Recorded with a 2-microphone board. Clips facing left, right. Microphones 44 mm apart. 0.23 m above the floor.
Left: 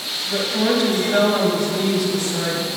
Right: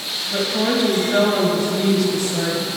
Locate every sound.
0.3 s a woman speaking: 5° right (ahead or behind), 1.7 m; by 2.7 s 5° left (ahead or behind), 1.7 m